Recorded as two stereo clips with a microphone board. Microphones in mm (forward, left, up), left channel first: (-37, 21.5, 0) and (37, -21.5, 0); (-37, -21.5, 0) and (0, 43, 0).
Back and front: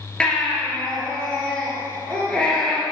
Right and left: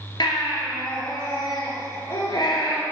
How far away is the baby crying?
About 2 m.